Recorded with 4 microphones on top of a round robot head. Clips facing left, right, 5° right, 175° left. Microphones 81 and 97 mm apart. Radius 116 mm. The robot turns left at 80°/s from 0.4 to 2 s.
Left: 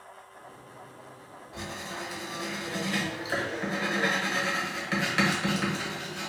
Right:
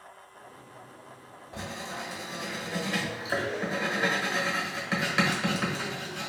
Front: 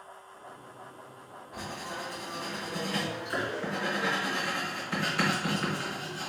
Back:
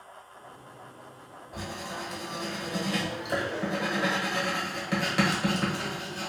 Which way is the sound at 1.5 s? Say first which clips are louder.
Right 1 dB, back 1 dB; 130° right.